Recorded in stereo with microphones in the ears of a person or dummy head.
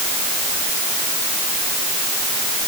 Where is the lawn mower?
I don't hear a lawn mower.